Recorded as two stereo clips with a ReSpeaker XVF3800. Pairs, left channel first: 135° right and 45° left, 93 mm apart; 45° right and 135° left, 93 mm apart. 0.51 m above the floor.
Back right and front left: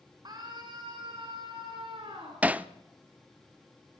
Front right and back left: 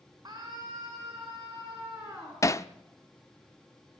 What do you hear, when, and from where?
0.2 s a scream: 90° left, 4.5 m; by 2.3 s 75° left, 6 m
2.4 s hammering: 15° right, 0.6 m